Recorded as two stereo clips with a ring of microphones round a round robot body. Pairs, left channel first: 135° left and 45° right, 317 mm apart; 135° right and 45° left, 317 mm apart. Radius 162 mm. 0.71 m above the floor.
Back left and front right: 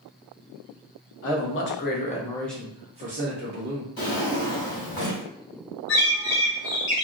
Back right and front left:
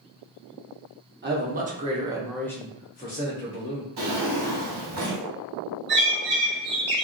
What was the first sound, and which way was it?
A man speaking, 95° left.